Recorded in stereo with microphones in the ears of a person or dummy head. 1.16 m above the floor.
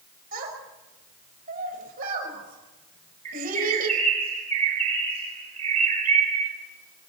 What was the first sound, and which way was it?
A child speaking, 45° right (ahead or behind).